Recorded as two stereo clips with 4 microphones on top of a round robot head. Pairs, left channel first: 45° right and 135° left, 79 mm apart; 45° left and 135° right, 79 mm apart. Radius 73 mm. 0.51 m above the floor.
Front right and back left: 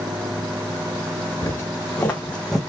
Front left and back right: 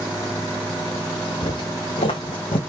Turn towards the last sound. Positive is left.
turn(degrees=45)